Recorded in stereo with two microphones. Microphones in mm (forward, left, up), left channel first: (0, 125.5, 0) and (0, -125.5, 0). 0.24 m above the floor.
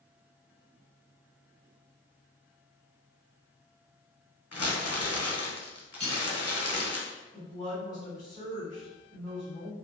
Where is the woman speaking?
15° left (ahead or behind), 1.4 m.